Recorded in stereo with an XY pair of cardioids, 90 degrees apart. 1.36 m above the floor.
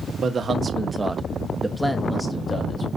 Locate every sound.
0.1 s a man speaking: 60° right, 1.4 m; by 2.9 s 30° left, 1.7 m